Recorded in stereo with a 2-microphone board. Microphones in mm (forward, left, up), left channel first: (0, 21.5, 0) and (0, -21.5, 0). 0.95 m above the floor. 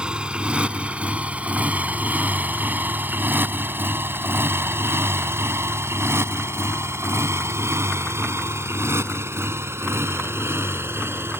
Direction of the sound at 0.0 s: 20° right (ahead or behind).